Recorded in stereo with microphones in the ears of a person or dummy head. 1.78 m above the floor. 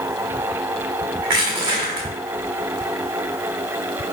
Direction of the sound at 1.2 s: 25° right (ahead or behind).